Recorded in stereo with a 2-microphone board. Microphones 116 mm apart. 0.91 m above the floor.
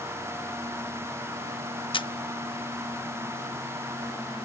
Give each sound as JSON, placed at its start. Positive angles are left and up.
{"t": 1.9, "sound": "a camera shutter", "side_deg": 50}